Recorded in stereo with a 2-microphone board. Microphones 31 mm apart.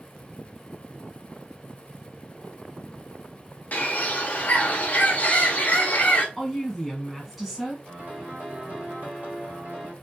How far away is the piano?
About 1.2 m.